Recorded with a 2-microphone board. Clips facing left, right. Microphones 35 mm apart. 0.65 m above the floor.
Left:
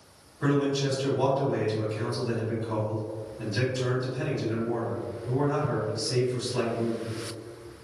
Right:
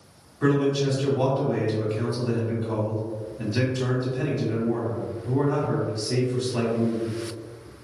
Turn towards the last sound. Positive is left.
turn(degrees=-50)  # may be behind; listen again after turning